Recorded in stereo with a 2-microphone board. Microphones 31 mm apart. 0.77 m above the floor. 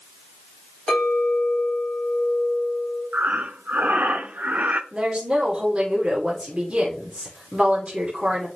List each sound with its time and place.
0.9 s a clink: 10° left (ahead or behind), 3.5 m
3.1 s breathing: 65° right (ahead or behind), 0.6 m
4.9 s a woman speaking: 30° right (ahead or behind), 2 m